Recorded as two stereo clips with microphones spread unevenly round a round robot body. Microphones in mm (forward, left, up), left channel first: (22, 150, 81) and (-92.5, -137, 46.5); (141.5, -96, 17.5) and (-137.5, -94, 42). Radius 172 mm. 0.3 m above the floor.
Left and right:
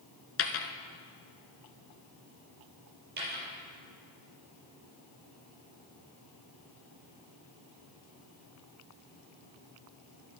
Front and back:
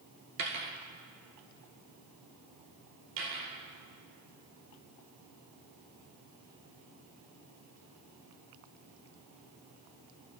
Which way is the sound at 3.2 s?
175° right.